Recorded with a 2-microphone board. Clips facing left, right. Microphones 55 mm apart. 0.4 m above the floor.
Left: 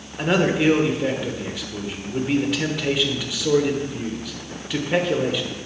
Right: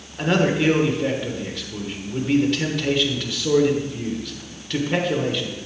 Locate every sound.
0.2 s a man speaking: 10° left (ahead or behind), 1.1 m